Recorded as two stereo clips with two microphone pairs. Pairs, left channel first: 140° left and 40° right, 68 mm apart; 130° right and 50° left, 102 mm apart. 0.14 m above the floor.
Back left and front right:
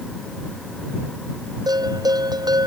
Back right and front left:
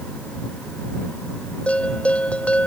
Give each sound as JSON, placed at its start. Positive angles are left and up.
{"t": 1.7, "sound": "a bell", "azimuth_deg": -55}